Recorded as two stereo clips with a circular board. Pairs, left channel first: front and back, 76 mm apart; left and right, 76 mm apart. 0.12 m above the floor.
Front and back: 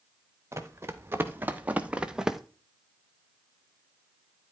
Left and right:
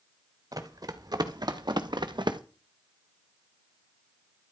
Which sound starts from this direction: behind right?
Running footsteps, at 0.5 s.